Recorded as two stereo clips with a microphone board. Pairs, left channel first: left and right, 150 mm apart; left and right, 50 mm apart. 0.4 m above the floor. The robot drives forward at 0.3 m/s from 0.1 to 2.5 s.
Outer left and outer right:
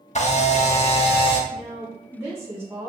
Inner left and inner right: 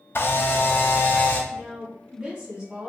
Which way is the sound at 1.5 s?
15° right (ahead or behind).